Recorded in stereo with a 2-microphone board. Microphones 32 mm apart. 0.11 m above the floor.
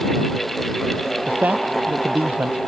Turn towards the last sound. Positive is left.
turn(degrees=-60)  # may be behind; listen again after turning